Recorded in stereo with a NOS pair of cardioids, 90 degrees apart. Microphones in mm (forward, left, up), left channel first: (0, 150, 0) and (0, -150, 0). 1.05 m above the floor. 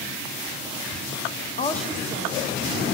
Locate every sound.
1.6 s a woman speaking: 35° left, 0.6 m; by 2.8 s 55° right, 1.7 m